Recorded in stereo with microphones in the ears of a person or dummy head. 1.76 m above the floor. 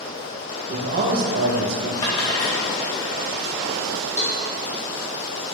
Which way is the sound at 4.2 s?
5° left (ahead or behind).